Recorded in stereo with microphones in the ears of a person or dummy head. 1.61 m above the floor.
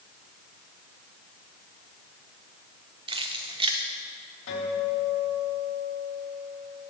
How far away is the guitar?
About 3.5 m.